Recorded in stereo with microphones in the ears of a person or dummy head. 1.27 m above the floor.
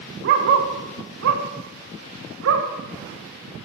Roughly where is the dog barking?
Right.